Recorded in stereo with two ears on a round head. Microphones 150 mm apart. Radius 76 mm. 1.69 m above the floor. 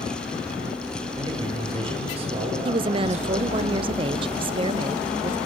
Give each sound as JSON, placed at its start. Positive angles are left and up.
{"t": 1.1, "sound": "a man speaking", "side_deg": -30, "distance_m": 7.0}
{"t": 2.6, "sound": "a woman speaking", "side_deg": -30, "distance_m": 0.5}